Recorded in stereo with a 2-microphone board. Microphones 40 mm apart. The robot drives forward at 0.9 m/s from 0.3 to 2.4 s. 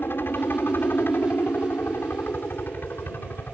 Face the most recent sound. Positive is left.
turn(degrees=60)  # may be behind; listen again after turning